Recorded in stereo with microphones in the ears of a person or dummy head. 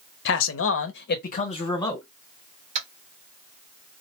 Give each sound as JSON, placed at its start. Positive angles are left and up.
{"t": 0.2, "sound": "a man speaking", "side_deg": 60, "distance_m": 0.7}
{"t": 2.8, "sound": "tapping", "side_deg": -40, "distance_m": 1.2}